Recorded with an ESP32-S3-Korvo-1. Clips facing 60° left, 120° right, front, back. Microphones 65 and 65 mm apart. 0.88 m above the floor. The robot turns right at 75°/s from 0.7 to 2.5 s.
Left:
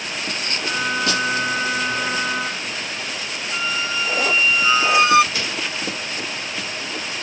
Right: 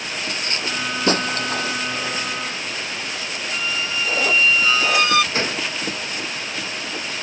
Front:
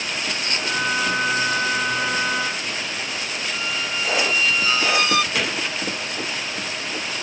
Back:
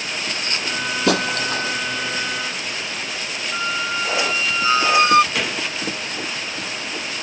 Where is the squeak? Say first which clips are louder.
Left 2 dB, back 6 dB; 130° left.